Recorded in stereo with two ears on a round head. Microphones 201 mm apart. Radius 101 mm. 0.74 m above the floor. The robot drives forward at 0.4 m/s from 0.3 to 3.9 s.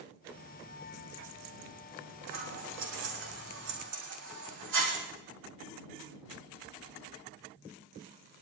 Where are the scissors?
85° right, 10 m.